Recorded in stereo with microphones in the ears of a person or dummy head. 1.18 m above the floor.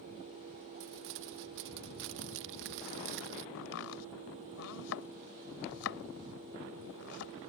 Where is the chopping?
80° left.